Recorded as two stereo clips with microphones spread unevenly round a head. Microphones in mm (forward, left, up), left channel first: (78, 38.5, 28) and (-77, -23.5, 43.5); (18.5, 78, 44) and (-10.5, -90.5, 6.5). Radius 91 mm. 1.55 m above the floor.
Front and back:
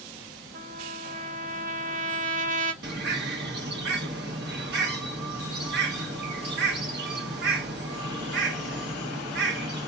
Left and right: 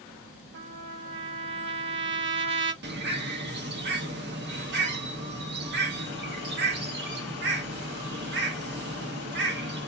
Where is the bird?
125° right, 1.1 m.